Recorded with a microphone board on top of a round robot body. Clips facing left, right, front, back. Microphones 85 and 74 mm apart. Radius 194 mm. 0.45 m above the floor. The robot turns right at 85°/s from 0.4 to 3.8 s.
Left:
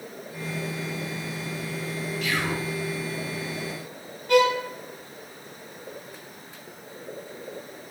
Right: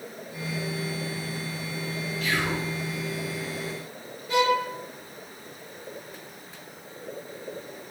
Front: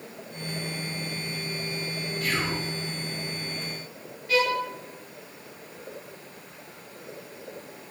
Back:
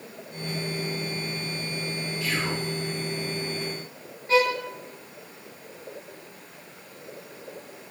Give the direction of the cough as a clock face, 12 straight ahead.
I don't hear a cough.